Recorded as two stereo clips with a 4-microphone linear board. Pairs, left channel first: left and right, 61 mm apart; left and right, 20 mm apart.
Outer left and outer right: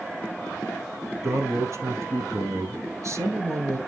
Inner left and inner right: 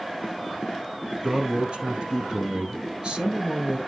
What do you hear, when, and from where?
1.2 s a man speaking: 50° right (ahead or behind), 2.0 m